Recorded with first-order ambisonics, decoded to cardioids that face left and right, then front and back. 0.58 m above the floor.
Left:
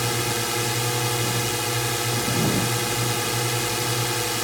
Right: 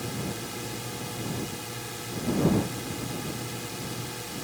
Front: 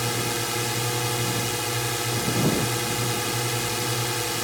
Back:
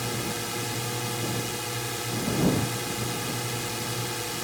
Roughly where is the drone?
Ahead left.